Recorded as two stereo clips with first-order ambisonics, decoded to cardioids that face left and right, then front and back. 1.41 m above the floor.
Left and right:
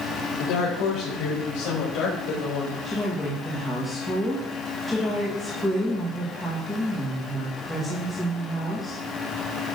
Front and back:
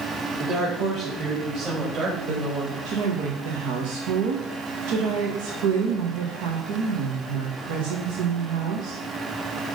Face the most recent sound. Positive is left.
turn(degrees=-175)